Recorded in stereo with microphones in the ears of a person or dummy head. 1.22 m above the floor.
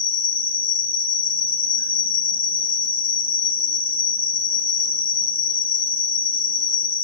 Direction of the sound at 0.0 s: 25° left (ahead or behind).